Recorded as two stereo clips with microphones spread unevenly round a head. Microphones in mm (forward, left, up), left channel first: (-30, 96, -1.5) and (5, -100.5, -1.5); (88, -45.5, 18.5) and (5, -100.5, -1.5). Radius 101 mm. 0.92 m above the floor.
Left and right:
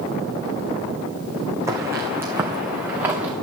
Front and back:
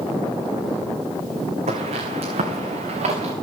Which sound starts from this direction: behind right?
Footsteps, at 1.7 s.